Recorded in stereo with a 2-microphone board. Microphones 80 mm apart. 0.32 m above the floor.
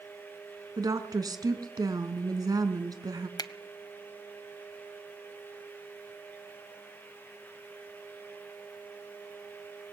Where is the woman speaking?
50° right (ahead or behind), 3 m.